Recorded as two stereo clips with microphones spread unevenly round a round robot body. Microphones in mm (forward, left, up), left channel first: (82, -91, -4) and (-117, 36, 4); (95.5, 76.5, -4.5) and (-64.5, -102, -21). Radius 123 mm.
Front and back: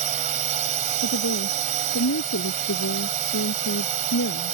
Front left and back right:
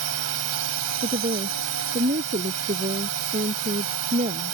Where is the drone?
155° right.